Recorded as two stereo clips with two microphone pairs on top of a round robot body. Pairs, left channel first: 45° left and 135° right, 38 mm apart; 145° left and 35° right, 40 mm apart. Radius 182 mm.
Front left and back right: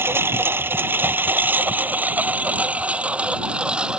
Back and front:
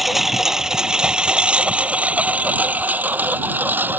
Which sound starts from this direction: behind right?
A lawn mower, at 0.0 s.